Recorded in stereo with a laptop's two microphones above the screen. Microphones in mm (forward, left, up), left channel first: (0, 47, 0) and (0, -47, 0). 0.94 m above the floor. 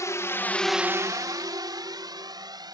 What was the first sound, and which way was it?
A drone, 35° left (ahead or behind).